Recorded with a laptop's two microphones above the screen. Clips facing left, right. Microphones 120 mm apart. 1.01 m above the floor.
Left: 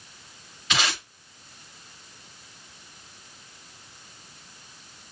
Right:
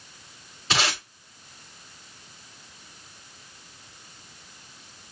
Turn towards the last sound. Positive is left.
turn(degrees=-35)  # may be behind; listen again after turning